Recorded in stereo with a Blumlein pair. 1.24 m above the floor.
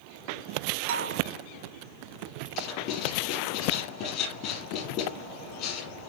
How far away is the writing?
About 5 m.